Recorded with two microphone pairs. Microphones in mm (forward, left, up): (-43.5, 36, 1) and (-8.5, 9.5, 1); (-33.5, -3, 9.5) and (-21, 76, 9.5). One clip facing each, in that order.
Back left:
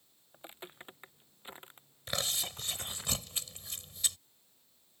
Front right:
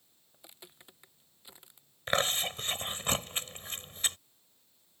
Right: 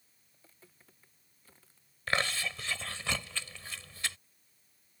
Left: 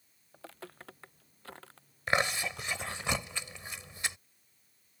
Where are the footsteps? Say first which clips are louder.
Back left 7 dB, left 15 dB; 85° left; by 3.1 s 105° left.